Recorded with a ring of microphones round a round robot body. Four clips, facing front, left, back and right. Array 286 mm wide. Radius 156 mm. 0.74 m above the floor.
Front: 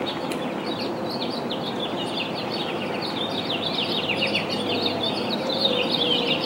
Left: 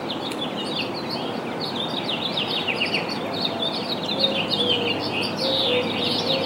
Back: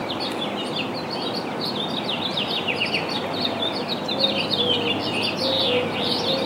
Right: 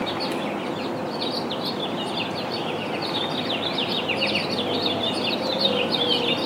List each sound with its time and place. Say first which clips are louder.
0.3 s scissors: right 2 dB, even; 45° left, 1.2 m